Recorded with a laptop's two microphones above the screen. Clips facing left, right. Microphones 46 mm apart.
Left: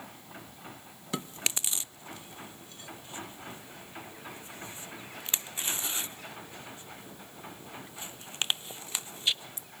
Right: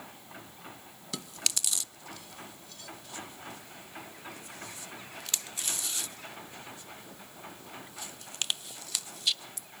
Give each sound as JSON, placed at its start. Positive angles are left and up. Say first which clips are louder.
{"t": 1.1, "sound": "chewing", "louder": "left 3 dB", "side_deg": 25, "distance_m": 0.6}